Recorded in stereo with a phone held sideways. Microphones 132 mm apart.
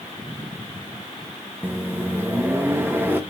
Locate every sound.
1.6 s a microwave: 15° right (ahead or behind), 0.6 m